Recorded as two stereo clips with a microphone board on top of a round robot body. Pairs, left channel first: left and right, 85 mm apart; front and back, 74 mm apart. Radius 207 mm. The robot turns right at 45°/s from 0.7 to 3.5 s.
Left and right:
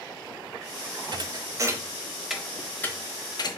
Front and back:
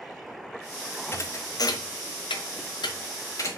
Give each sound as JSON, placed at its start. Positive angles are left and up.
{"t": 1.1, "sound": "a thud", "azimuth_deg": -60, "distance_m": 0.9}